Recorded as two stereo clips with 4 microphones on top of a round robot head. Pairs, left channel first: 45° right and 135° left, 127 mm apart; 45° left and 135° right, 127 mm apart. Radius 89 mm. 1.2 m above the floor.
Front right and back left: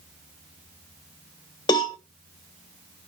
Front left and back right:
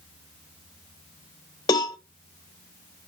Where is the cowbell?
Straight ahead, 0.7 m.